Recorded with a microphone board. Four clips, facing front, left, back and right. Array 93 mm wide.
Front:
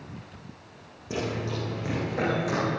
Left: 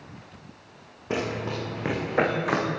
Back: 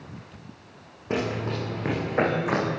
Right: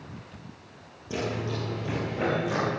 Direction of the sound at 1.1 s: 130° left.